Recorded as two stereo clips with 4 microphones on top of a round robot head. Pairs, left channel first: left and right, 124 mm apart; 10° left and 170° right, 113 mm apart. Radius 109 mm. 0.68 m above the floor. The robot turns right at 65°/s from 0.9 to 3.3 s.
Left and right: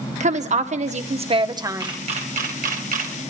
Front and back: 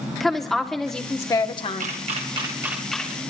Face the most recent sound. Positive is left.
turn(degrees=-55)